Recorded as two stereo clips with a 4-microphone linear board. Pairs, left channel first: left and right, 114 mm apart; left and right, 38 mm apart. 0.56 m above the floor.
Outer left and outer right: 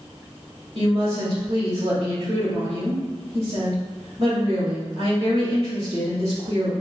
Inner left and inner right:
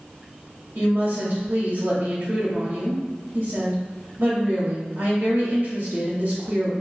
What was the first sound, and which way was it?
A woman speaking, 65° right (ahead or behind).